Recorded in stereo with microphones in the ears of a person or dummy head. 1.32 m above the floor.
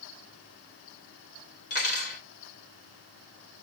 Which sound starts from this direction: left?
Cutlery clinking, at 1.7 s.